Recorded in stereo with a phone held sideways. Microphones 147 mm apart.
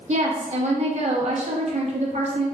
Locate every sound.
0.1 s a woman speaking: 50° right (ahead or behind), 0.9 m